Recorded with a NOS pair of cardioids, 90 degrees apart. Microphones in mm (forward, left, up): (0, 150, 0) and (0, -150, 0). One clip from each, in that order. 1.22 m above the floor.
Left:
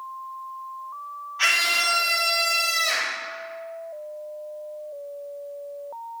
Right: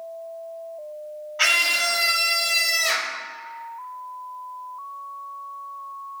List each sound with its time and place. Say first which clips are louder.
1.4 s a scream: right 1 dB; 35° right, 2.5 m; by 3.2 s 55° right, 1.5 m